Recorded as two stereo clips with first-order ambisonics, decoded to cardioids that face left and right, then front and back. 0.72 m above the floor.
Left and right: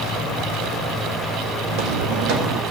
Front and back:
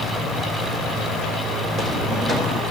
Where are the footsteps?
115° right, 2 m.